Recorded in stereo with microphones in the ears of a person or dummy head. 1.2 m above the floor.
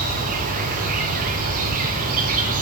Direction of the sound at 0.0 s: 45° right (ahead or behind).